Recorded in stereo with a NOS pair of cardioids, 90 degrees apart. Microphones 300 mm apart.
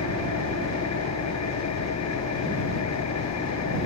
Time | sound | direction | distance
0.0 | an engine running | 60° left | ?